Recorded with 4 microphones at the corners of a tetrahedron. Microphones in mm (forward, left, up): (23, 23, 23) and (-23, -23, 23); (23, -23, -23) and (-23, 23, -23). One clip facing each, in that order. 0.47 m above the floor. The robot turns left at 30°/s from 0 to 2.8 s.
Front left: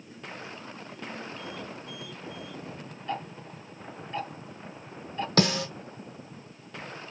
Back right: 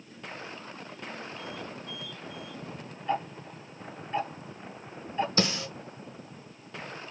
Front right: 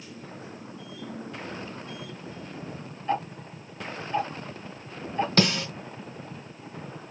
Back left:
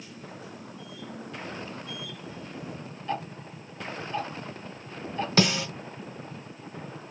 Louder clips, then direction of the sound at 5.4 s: Front left 10 dB, back left 1 dB; 50° left.